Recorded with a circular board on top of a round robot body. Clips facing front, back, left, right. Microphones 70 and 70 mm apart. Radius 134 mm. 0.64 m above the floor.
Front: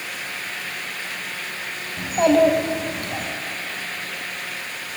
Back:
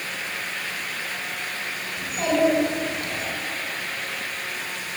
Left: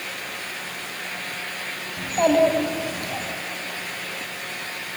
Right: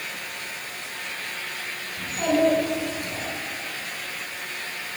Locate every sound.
2.0 s a child speaking: 45° left, 3 m; by 3.3 s 50° left, 4 m